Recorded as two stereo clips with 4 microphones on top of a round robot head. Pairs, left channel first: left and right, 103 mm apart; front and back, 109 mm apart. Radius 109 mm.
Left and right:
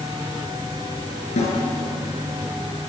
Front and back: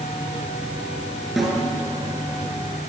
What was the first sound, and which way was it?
A snare drum, 90° left.